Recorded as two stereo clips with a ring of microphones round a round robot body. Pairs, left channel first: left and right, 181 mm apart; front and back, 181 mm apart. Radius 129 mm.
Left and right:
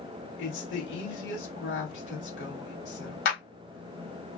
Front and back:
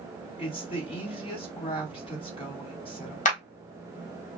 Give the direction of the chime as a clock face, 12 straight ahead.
No chime in this recording.